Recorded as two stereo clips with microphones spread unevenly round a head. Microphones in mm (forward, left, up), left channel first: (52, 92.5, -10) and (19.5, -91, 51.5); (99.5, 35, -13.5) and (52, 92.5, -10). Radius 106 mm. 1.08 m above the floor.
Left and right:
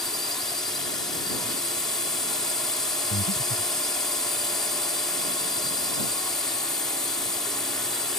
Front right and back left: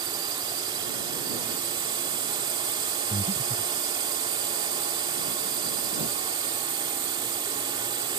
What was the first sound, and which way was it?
A drone, 165° left.